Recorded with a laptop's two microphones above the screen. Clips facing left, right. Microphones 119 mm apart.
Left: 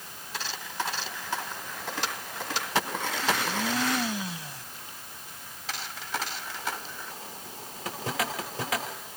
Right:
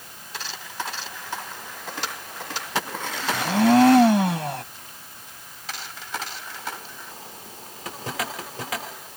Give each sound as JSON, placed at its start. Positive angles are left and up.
{"t": 3.3, "sound": "a blender", "side_deg": -65}